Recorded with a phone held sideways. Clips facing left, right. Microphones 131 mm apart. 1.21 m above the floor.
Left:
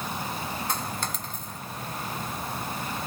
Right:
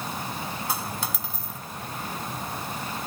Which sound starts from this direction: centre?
A dropped coin, at 0.7 s.